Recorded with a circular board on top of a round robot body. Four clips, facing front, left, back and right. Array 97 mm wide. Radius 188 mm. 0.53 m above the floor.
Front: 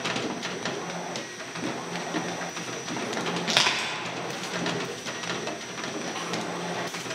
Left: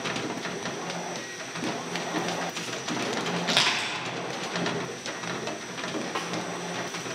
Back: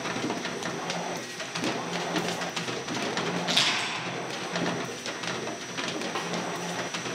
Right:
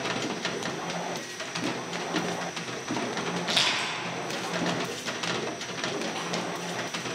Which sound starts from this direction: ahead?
Crushing, at 3.5 s.